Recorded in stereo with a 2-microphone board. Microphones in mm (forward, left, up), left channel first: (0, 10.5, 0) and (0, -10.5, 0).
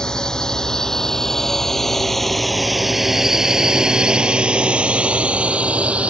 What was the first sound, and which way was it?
A drone, 30° left (ahead or behind).